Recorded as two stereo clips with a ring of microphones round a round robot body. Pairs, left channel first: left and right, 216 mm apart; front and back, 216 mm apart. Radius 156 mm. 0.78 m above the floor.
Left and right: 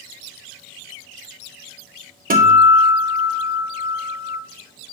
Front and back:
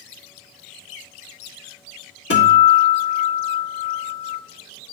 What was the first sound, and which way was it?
A guitar, 40° right.